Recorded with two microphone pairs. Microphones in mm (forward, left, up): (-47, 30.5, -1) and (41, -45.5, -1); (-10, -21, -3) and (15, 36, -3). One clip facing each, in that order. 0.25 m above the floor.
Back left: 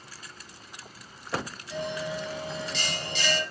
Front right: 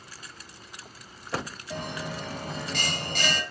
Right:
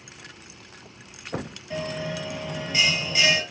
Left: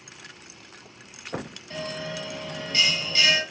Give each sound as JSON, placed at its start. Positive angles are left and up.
{"t": 1.7, "sound": "a bell", "azimuth_deg": -45, "distance_m": 2.0}